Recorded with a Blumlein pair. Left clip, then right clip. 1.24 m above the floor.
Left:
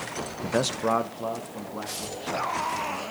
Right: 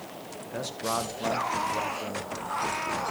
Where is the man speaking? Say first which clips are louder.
Left 7 dB; 40° left, 0.5 m; by 3.0 s 5° right, 3 m.